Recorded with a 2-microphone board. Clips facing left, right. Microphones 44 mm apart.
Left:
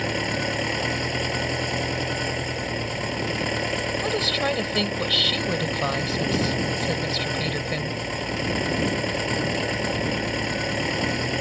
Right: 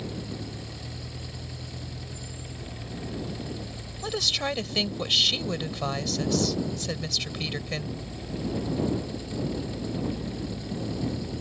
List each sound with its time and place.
0.0 s an engine running: 80° left
4.0 s a woman speaking: 15° left (ahead or behind)